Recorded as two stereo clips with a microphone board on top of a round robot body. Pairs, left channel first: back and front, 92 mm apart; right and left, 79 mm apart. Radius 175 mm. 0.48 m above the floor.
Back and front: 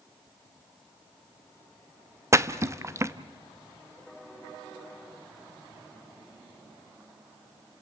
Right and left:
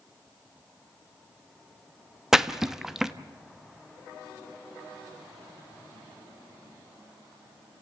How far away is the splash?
About 1.1 m.